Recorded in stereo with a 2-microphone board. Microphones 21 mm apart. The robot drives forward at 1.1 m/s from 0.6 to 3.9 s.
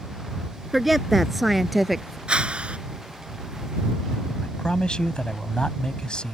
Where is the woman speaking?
Centre (ahead or behind).